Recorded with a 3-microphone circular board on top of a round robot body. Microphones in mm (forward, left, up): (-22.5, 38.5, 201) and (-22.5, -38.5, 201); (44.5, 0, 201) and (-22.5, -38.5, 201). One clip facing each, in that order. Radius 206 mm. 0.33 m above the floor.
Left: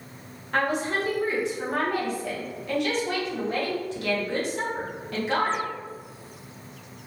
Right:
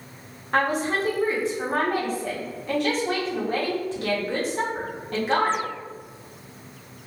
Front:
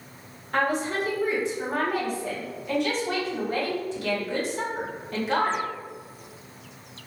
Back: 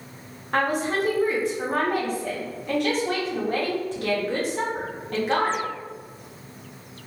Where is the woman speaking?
130° right, 1.4 m.